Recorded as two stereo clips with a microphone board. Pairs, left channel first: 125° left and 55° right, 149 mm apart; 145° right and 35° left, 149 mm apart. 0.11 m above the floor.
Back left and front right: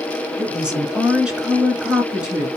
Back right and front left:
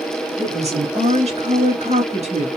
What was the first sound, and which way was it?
A woman speaking, 25° left.